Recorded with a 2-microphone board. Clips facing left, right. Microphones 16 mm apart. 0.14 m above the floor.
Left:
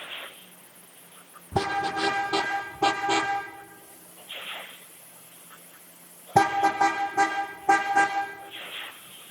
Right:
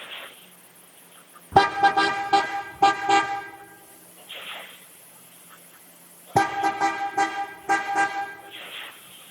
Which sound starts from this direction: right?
A car horn, at 1.5 s.